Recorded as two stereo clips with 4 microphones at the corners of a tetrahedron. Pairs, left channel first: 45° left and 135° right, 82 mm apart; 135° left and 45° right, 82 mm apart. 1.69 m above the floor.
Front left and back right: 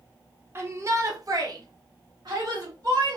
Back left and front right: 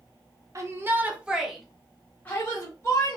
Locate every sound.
0.6 s a shout: 85° right, 1.0 m; by 3.2 s 175° right, 1.6 m